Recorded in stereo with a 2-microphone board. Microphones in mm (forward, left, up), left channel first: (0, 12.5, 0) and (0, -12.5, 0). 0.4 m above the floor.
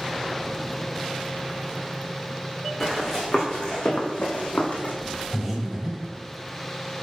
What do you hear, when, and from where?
2.8 s running footsteps: 15° left (ahead or behind), 2 m; by 5.0 s 65° left (ahead or behind), 1.7 m
5.3 s breathing: 10° right (ahead or behind), 2.0 m